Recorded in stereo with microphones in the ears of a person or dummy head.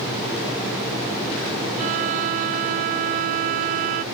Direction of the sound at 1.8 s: 40° right (ahead or behind).